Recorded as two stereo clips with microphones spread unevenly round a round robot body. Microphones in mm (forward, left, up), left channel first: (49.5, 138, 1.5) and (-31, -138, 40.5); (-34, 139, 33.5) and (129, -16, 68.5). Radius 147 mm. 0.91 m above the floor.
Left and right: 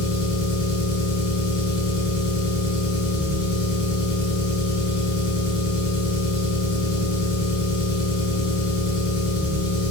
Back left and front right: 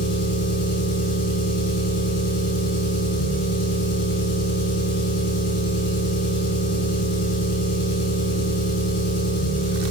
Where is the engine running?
170° left, 6 m.